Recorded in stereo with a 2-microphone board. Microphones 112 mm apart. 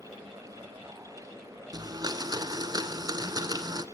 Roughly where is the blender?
Right.